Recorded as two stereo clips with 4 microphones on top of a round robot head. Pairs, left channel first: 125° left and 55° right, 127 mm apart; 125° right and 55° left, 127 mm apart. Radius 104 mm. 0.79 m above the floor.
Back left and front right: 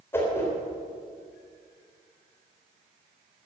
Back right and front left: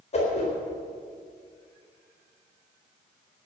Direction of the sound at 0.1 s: 165° right.